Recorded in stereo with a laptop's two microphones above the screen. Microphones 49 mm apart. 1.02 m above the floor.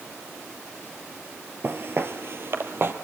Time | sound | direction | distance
1.6 | footsteps | 50° right (ahead or behind) | 1.4 m